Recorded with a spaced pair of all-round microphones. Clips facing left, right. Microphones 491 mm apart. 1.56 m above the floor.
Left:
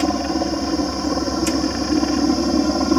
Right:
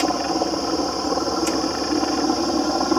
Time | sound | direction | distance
0.0 | a helicopter | 40° left (ahead or behind) | ?